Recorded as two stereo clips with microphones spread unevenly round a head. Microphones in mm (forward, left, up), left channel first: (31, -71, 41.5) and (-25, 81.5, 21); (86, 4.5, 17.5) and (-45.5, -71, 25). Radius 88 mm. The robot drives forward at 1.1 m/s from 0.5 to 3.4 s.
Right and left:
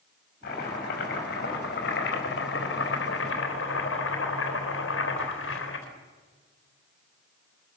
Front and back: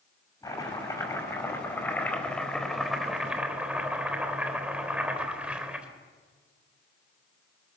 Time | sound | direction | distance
0.4 | chopping | 35° right | 6 m